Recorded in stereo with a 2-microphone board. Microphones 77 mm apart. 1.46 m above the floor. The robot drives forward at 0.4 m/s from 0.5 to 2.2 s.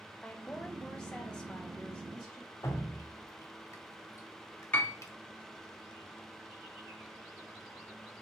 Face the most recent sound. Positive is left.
turn(degrees=20)  # may be behind; listen again after turning